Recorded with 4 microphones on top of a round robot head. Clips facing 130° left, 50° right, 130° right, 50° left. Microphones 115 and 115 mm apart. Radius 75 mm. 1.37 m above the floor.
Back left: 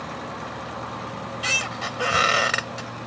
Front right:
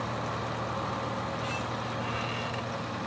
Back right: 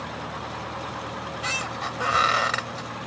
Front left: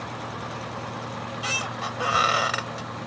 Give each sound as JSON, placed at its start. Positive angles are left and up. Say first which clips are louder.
{"t": 1.1, "sound": "a squeak", "louder": "back left 2 dB, even", "azimuth_deg": 135}